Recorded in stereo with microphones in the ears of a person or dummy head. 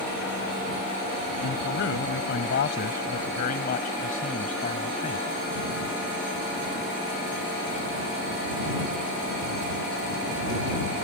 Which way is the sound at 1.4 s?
60° left (ahead or behind).